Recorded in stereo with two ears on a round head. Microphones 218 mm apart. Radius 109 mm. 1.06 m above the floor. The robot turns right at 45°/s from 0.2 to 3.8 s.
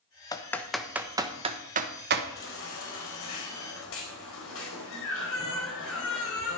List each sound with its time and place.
0.3 s typing on a keyboard: 15° left (ahead or behind), 1.1 m; by 2.2 s 50° right (ahead or behind), 1.1 m
2.4 s a baby crying: 50° left, 3.5 m; by 6.6 s 115° left, 3.5 m